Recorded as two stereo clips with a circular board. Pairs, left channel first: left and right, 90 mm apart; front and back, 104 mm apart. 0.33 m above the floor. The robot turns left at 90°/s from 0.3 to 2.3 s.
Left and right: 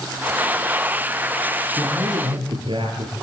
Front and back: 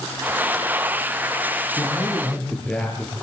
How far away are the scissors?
No scissors in this recording.